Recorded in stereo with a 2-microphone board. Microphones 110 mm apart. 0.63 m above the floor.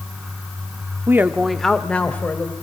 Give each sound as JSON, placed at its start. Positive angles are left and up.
{"t": 1.1, "sound": "a woman speaking", "side_deg": -25, "distance_m": 0.9}